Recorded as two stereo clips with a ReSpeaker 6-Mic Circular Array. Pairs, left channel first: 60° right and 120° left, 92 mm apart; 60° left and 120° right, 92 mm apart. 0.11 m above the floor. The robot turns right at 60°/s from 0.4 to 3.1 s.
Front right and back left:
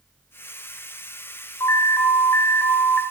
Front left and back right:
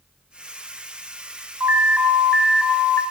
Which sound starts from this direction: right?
An alarm, at 1.6 s.